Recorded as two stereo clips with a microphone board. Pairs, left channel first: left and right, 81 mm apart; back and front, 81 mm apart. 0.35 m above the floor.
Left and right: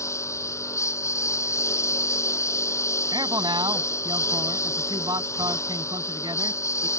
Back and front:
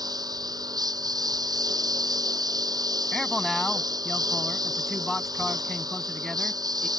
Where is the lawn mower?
35° left.